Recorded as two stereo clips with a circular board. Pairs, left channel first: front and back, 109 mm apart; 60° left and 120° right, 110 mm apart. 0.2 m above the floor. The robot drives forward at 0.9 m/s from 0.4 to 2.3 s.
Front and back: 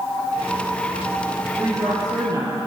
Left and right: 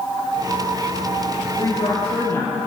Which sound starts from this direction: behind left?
A woman speaking, at 1.6 s.